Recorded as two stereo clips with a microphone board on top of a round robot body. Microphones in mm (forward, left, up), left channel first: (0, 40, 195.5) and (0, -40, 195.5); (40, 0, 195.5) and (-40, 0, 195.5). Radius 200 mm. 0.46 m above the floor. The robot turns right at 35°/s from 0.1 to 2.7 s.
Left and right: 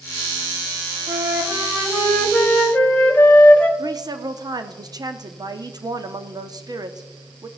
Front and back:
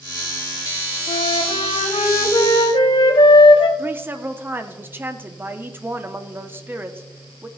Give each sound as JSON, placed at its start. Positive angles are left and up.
{"t": 1.1, "sound": "a flute", "azimuth_deg": -40, "distance_m": 0.9}
{"t": 3.8, "sound": "a woman speaking", "azimuth_deg": -120, "distance_m": 1.2}